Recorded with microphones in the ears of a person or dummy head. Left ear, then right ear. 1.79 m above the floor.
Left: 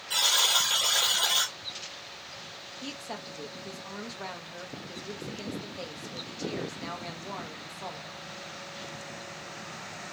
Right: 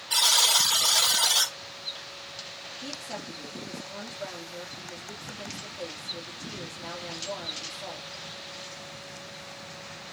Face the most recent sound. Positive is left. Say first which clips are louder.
# right 1 dB
turn(degrees=70)  # may be behind; listen again after turning